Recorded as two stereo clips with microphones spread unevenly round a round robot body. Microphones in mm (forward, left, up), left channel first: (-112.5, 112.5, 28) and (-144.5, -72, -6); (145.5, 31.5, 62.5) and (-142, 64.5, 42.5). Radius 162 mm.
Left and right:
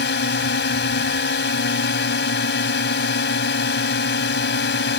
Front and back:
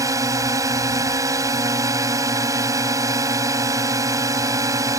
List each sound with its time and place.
0.0 s a drone: 95° left